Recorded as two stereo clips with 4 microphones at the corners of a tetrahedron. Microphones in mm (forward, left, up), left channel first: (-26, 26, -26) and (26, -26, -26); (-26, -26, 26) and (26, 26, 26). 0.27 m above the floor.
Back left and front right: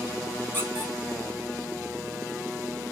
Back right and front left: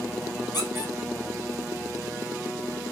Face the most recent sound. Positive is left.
turn(degrees=-160)